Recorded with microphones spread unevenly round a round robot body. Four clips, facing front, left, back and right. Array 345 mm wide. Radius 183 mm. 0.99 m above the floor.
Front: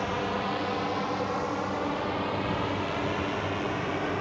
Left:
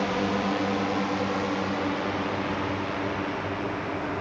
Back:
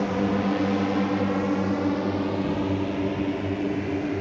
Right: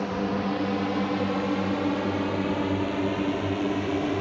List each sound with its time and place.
0.0 s a drone: straight behind; by 4.2 s 140° right